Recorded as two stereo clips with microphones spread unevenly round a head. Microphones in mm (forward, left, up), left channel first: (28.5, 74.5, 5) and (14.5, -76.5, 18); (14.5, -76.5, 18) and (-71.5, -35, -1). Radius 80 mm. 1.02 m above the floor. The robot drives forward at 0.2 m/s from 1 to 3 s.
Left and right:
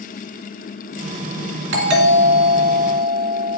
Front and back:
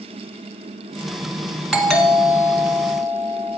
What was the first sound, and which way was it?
A doorbell, 120° right.